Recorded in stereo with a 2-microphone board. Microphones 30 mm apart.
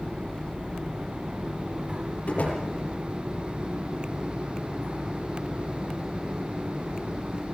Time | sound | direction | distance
2.3 | a door slam | 55° left (ahead or behind) | 8 m